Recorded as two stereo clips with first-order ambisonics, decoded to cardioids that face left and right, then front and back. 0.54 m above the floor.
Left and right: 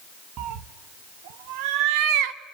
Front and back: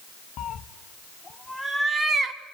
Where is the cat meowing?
45° right, 1.0 m; by 2.5 s 115° right, 1.4 m.